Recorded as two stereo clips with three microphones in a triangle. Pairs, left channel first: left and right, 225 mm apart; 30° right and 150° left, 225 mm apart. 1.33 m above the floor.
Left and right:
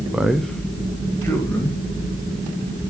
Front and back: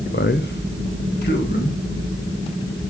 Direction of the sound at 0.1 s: 5° right.